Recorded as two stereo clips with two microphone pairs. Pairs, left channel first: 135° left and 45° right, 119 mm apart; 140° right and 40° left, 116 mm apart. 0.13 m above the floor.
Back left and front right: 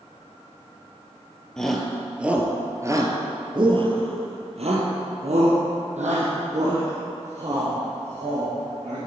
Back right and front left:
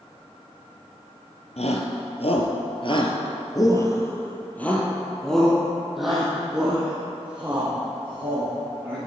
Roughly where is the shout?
Behind right.